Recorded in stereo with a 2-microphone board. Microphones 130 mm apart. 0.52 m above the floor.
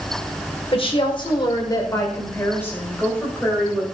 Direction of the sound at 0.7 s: 45° left (ahead or behind).